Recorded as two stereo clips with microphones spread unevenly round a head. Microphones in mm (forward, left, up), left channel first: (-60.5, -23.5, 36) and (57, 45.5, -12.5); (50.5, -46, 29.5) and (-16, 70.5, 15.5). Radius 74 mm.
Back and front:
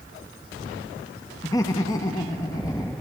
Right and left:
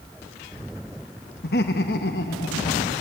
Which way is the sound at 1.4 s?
85° right.